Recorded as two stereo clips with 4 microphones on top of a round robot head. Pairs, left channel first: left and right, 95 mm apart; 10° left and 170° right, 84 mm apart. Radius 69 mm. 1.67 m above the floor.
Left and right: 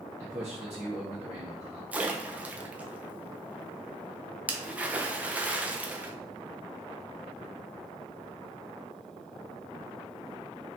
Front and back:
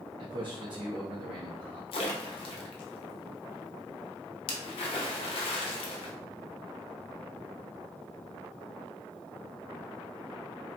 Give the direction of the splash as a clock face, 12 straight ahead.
12 o'clock.